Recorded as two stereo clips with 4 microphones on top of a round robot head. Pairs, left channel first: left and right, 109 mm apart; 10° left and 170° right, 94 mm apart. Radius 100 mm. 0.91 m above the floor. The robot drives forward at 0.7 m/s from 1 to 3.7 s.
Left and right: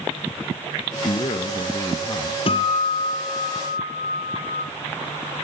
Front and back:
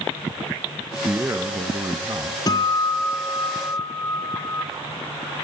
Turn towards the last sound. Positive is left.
turn(degrees=75)